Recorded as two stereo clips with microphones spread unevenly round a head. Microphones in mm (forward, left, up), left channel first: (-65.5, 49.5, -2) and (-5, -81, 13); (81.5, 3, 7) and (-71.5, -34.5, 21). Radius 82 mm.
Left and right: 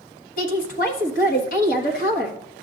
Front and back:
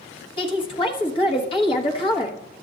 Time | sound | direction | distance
0.4 | a woman speaking | 75° left | 1.3 m